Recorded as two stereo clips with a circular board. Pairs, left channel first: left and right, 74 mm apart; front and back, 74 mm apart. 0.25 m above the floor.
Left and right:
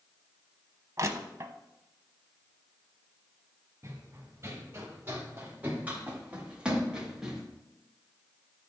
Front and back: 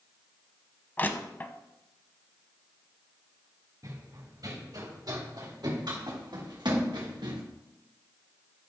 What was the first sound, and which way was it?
Crushing, 60° right.